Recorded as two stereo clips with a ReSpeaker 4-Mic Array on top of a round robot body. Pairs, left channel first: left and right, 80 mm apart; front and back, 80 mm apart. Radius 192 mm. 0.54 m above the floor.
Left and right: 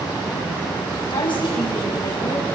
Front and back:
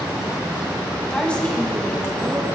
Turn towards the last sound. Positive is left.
turn(degrees=80)